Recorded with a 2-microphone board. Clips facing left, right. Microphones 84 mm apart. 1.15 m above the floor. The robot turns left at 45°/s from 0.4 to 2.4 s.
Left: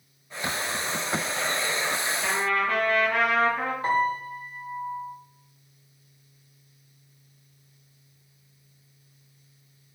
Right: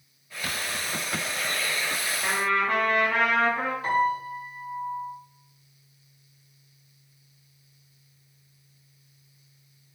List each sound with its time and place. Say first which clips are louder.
2.2 s a trumpet: right 1 dB; 35° right (ahead or behind), 1.9 m; by 3.7 s 25° right (ahead or behind), 1.9 m
3.8 s a piano: even; 35° left (ahead or behind), 1.1 m